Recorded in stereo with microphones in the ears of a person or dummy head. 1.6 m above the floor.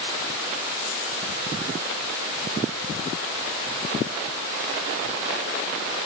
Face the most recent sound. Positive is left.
No sound to turn to.